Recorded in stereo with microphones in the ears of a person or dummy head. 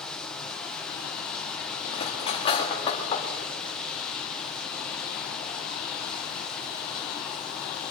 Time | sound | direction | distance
0.0 | running water | 10° left (ahead or behind) | 0.8 m
1.9 | cutlery clinking | 35° left (ahead or behind) | 2.0 m